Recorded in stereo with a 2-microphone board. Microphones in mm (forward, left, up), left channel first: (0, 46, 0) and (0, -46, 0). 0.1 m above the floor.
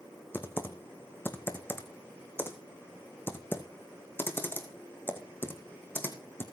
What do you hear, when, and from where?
0.3 s typing on a keyboard: 25° left (ahead or behind), 1.9 m